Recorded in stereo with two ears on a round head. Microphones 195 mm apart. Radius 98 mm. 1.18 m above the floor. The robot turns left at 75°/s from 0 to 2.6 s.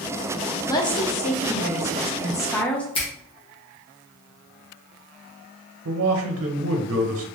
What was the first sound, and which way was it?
A woman speaking, 155° left.